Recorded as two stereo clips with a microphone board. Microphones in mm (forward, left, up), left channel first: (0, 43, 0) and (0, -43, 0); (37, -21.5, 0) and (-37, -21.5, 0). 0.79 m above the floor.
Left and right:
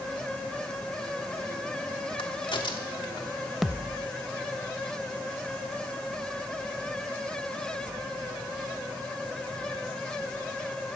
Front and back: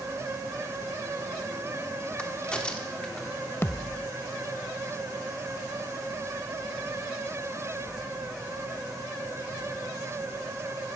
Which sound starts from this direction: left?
A crack, at 2.2 s.